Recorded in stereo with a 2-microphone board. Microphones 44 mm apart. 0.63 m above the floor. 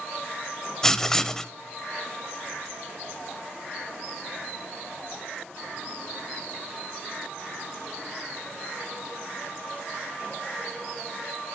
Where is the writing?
10° left (ahead or behind), 0.5 m.